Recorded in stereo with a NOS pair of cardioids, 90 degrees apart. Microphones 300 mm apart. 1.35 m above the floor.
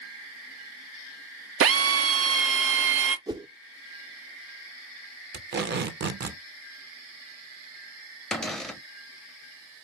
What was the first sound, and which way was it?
A drill, 50° right.